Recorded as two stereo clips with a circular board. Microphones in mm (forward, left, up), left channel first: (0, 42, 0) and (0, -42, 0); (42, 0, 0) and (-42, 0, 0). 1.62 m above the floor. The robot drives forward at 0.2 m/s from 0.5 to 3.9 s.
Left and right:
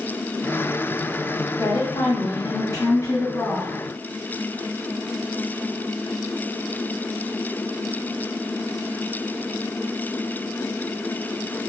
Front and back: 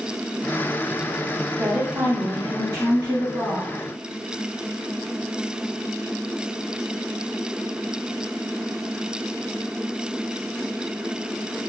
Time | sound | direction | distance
1.6 | a woman speaking | 110° left | 0.7 m